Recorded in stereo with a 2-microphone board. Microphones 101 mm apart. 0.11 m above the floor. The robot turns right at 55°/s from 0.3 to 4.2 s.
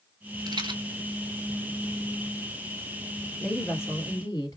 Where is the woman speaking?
15° left, 1.7 m; by 4.6 s 55° left, 1.7 m.